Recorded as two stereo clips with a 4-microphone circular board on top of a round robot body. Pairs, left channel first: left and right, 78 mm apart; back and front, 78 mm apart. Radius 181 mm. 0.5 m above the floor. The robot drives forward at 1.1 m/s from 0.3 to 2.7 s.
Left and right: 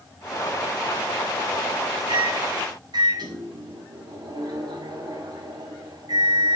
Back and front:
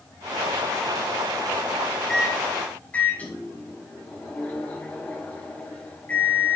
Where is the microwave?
90° right, 2 m; by 6.6 s 110° right, 2 m.